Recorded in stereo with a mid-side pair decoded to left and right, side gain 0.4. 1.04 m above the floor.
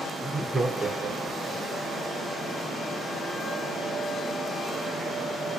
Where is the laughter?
5° right, 0.9 m; by 1.6 s 80° right, 0.9 m.